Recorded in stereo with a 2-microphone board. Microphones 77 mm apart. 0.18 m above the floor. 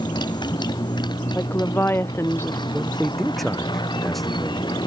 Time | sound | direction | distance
0.0 | a motorcycle | 70° left (ahead or behind) | ?
1.4 | a woman speaking | 30° left (ahead or behind) | ?
2.7 | a man speaking | centre (ahead or behind) | ?